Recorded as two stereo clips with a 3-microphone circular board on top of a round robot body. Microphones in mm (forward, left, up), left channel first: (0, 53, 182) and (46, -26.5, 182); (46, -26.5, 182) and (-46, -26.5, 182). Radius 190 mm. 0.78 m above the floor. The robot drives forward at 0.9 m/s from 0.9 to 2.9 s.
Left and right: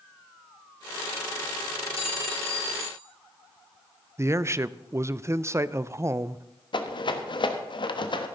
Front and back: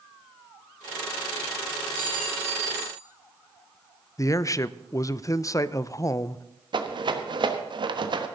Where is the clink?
110° left, 2.5 m; by 3.0 s 125° left, 3 m.